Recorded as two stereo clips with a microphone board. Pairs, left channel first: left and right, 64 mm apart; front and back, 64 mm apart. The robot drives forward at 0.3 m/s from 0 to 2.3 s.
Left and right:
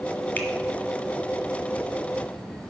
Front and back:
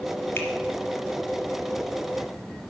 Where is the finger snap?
40° left, 1.7 m.